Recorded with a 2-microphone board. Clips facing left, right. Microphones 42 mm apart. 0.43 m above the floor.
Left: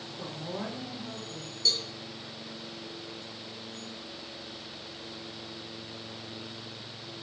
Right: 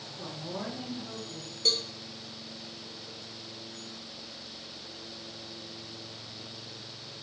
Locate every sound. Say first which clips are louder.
0.2 s a woman speaking: left 1 dB; 10° left (ahead or behind), 0.9 m
1.6 s a cowbell: right 1 dB; 40° right (ahead or behind), 0.5 m